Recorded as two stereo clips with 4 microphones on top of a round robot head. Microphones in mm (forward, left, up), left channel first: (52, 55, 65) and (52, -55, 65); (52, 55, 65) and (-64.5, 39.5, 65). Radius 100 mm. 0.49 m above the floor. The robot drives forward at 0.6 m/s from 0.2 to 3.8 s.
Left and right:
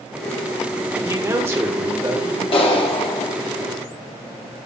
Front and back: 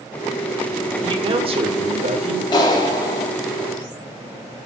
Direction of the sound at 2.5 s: 60° left.